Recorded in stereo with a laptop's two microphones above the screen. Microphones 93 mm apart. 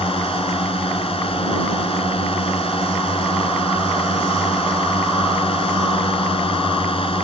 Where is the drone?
80° left; by 7.2 s 75° left (ahead or behind).